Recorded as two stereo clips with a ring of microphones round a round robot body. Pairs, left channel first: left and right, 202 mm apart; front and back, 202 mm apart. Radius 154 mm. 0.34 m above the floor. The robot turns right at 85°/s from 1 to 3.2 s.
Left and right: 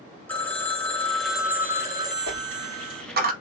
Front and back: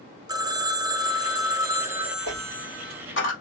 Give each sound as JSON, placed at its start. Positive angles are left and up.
{"t": 0.3, "sound": "a phone ringing", "azimuth_deg": 155, "distance_m": 0.9}
{"t": 2.3, "sound": "a dropped coin", "azimuth_deg": -125, "distance_m": 1.6}